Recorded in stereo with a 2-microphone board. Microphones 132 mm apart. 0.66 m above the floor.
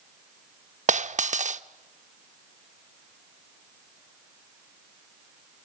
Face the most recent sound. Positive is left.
turn(degrees=-60)  # may be behind; listen again after turning